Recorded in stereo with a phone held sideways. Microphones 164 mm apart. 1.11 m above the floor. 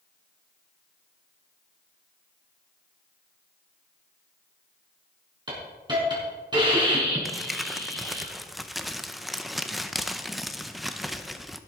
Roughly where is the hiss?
Right.